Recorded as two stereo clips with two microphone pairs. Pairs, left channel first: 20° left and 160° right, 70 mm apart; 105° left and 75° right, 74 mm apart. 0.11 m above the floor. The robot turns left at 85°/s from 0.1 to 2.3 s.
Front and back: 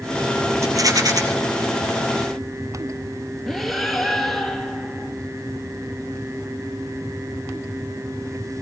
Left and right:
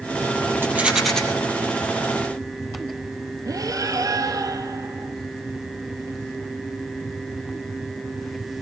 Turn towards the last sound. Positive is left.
turn(degrees=-75)